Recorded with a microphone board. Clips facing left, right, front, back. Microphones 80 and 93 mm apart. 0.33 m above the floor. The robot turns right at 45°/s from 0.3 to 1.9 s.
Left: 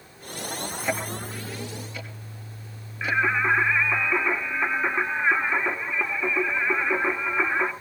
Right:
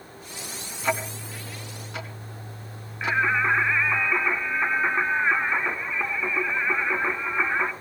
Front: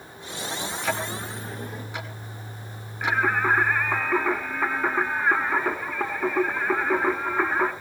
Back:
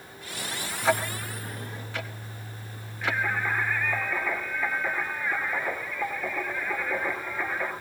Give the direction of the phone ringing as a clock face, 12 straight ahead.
No phone ringing in this recording.